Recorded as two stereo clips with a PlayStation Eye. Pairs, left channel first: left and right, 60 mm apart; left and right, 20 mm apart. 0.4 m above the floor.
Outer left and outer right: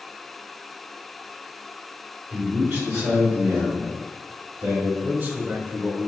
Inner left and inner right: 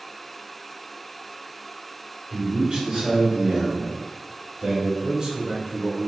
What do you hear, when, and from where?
2.3 s a man speaking: 50° right (ahead or behind), 1.3 m; by 4.9 s 65° right (ahead or behind), 2.5 m
5.0 s a man speaking: 35° right (ahead or behind), 1.0 m